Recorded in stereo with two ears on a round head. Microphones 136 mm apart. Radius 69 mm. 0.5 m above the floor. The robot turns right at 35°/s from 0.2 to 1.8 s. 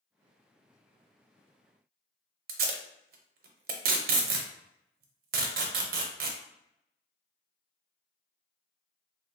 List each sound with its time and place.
2.5 s tape being pulled: 70° right (ahead or behind), 0.6 m